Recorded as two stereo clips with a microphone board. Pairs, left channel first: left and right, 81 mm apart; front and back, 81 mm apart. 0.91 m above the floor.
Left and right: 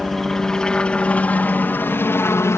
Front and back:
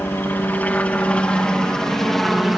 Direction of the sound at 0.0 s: 5° left.